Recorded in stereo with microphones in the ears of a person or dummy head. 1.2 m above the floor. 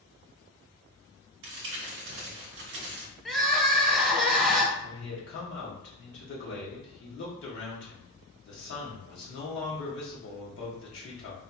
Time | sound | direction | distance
1.4 | crumpling | 55° right (ahead or behind) | 0.8 m
3.2 | crying | centre (ahead or behind) | 0.5 m
4.8 | a man speaking | 50° left (ahead or behind) | 1.0 m